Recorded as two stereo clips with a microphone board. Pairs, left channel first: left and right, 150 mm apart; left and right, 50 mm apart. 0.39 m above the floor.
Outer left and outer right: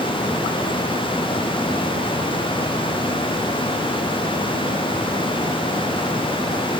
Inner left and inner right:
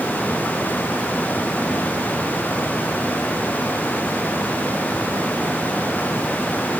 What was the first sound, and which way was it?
Only background noise.